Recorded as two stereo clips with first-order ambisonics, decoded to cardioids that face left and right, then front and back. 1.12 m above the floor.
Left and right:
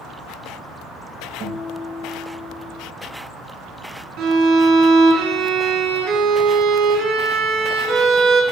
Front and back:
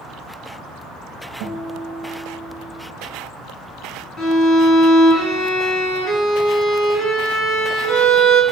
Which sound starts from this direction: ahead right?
A violin, at 4.2 s.